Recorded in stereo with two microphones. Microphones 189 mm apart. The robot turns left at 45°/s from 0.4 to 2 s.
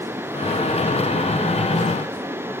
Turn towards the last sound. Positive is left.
No sound to turn to.